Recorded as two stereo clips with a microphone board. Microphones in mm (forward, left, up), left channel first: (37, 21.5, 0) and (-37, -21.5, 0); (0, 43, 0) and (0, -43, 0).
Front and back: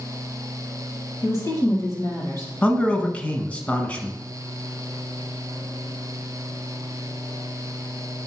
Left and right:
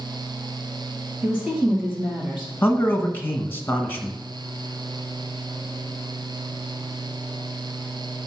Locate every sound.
1.2 s a woman speaking: 10° right, 3.5 m
2.6 s a man speaking: 80° left, 1.1 m